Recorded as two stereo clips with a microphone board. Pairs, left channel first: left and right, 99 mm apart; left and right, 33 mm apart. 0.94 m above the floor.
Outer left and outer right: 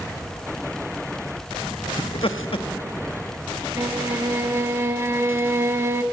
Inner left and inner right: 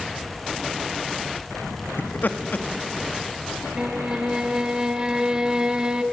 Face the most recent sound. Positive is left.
turn(degrees=-25)  # may be behind; listen again after turning